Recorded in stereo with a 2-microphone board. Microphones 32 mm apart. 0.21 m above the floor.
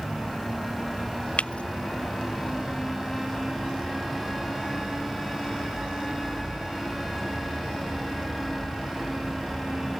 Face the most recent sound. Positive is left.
turn(degrees=40)  # may be behind; listen again after turning